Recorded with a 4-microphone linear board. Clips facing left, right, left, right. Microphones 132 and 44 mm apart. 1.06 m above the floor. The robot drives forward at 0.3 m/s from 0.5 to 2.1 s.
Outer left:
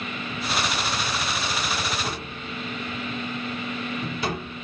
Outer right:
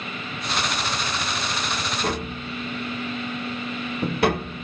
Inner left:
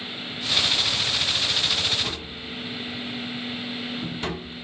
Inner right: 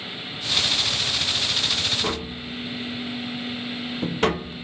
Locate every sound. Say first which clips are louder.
2.0 s tapping: outer right 5 dB, inner right 4 dB; 60° right (ahead or behind), 0.7 m; by 4.6 s 55° right (ahead or behind), 0.7 m